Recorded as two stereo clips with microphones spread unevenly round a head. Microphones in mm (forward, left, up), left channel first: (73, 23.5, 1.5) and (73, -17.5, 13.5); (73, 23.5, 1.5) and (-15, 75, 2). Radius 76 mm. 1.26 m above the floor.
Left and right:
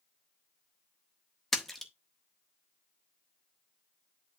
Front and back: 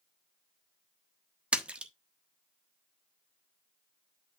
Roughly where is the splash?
Behind right.